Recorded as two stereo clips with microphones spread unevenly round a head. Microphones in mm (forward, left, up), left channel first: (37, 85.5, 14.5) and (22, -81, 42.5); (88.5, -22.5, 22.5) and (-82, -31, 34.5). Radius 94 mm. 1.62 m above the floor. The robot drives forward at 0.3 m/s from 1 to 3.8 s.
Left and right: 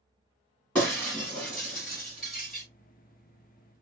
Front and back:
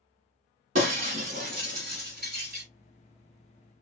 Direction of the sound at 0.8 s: Straight behind.